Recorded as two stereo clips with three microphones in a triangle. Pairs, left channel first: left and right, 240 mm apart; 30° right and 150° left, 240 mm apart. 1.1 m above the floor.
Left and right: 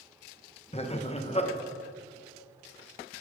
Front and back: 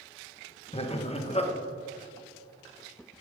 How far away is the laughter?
About 1.1 m.